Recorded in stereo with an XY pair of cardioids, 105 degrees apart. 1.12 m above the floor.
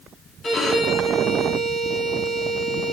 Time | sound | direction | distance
0.4 | a violin | 45° left | 1.9 m